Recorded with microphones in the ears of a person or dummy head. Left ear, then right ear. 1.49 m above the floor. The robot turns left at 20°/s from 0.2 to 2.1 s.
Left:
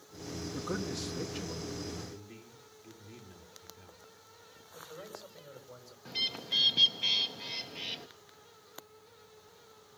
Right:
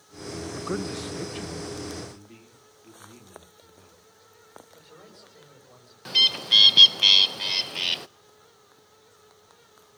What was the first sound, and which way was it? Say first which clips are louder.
A man speaking: right 5 dB; 30° right (ahead or behind).